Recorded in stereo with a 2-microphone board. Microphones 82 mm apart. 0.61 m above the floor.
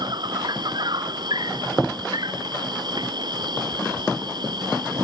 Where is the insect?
60° right (ahead or behind).